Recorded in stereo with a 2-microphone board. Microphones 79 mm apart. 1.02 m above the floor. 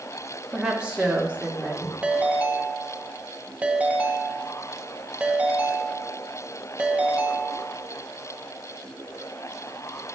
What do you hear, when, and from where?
0.5 s a woman speaking: 10° right (ahead or behind), 1.5 m; by 1.9 s 15° right (ahead or behind), 2.5 m
2.0 s a ringtone: 20° right (ahead or behind), 0.8 m